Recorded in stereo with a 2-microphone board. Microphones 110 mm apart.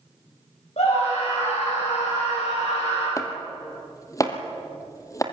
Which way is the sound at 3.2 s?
30° left (ahead or behind).